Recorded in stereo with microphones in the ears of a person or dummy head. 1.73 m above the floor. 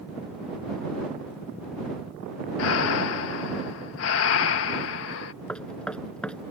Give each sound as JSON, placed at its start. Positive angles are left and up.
{"t": 2.6, "sound": "breathing", "side_deg": 65}
{"t": 5.5, "sound": "knocking", "side_deg": 5}